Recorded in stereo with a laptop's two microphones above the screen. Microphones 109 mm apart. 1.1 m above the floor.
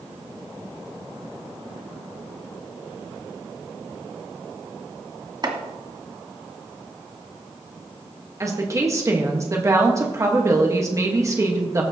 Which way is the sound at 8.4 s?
30° right (ahead or behind).